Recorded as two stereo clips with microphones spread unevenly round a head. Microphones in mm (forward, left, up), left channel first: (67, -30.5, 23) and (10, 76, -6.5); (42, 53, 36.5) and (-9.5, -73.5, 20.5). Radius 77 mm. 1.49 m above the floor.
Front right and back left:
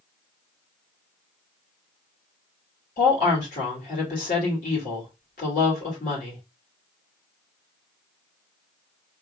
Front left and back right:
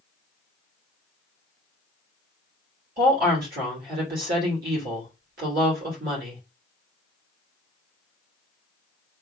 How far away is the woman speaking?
About 2.5 m.